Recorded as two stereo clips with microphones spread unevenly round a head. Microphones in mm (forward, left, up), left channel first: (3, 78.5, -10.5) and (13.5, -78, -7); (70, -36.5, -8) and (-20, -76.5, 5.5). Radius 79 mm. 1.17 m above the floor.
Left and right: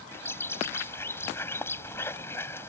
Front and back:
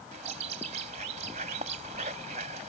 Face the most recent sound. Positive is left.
turn(degrees=170)